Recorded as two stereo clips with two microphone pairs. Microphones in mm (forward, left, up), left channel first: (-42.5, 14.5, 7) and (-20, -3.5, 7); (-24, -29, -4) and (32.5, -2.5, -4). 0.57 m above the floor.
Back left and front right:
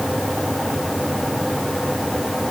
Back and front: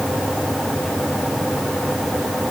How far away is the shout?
No shout in this recording.